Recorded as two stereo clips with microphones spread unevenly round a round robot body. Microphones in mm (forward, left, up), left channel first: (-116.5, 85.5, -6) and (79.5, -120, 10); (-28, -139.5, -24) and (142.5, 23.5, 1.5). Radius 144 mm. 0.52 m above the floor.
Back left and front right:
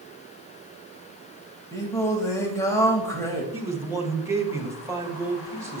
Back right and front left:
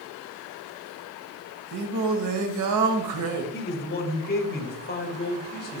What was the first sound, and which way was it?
Singing, 55° left.